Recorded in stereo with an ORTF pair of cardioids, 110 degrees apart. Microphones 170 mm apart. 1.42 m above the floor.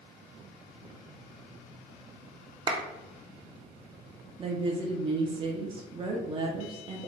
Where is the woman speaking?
30° right, 0.6 m.